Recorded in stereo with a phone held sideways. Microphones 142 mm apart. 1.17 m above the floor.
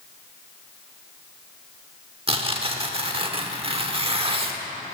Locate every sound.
2.3 s tearing paper: 40° right (ahead or behind), 1.1 m